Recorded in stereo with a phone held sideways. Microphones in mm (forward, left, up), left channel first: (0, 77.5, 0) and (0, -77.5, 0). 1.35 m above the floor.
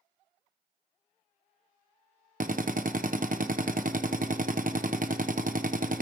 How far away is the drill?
About 0.9 m.